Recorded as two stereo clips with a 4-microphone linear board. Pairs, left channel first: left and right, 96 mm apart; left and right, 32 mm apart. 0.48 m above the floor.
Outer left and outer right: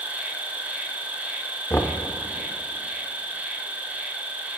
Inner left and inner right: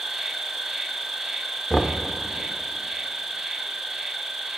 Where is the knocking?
25° left (ahead or behind), 0.6 m.